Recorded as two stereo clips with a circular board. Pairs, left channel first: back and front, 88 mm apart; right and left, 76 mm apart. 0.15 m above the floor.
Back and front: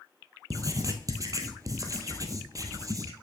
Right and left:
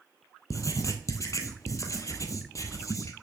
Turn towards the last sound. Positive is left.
turn(degrees=-50)